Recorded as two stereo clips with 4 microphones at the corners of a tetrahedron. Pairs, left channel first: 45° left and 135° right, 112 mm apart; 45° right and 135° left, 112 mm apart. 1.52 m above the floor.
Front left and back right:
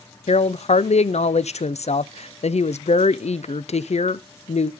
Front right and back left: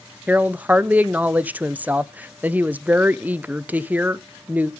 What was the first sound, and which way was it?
A woman speaking, 60° left.